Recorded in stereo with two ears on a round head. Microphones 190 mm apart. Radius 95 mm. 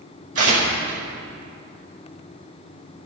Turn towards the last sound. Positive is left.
turn(degrees=-40)  # may be behind; listen again after turning